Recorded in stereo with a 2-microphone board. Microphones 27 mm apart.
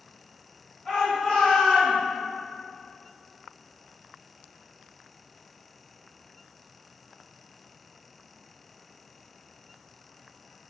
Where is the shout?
30° left (ahead or behind), 1.2 m.